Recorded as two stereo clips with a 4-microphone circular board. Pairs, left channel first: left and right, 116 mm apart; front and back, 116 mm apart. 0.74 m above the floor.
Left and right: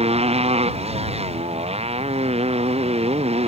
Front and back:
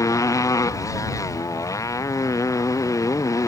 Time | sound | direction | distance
0.0 | a motorcycle | 60° right | ?